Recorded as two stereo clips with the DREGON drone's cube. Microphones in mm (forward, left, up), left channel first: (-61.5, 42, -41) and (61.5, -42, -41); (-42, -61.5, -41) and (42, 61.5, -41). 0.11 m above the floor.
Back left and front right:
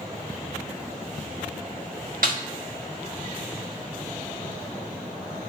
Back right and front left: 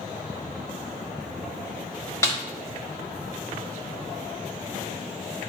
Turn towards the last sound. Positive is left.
turn(degrees=-55)